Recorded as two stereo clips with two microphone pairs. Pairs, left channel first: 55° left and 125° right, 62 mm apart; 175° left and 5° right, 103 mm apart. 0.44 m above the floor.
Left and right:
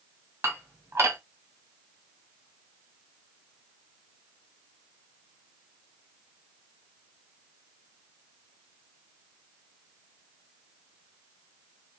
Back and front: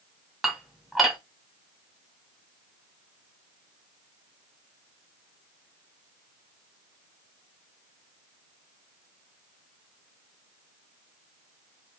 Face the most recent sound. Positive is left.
turn(degrees=-95)